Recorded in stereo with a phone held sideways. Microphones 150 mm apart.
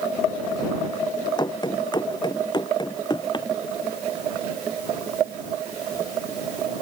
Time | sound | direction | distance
1.4 | running footsteps | 30° left (ahead or behind) | ?